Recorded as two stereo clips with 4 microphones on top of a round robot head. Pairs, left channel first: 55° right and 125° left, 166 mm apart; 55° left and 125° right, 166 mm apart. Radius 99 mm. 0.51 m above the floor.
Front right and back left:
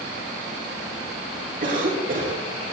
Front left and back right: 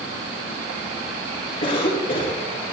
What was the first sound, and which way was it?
A cough, 95° left.